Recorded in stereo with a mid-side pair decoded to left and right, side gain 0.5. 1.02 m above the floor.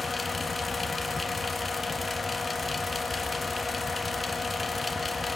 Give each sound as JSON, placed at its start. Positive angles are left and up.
{"t": 0.0, "sound": "a fan", "azimuth_deg": 20, "distance_m": 1.4}